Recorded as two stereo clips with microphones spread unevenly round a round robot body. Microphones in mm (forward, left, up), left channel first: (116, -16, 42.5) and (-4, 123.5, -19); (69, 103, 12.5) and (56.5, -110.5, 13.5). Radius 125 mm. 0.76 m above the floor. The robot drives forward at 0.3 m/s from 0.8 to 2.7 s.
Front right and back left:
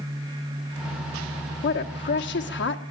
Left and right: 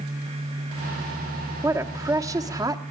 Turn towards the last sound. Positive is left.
turn(degrees=-20)